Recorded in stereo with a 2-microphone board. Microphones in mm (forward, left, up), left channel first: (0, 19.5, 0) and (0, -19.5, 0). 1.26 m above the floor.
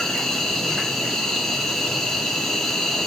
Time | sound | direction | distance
0.0 | an insect | 5° left (ahead or behind) | 0.7 m